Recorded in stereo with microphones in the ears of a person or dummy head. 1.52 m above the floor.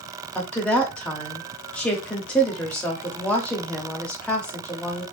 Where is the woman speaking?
5° left (ahead or behind), 0.6 m.